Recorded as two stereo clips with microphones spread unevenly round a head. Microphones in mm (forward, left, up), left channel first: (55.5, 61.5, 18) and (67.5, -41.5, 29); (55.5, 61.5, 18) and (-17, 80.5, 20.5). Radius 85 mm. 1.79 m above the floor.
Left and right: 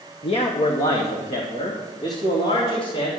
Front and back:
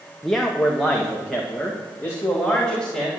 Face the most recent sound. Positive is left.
turn(degrees=75)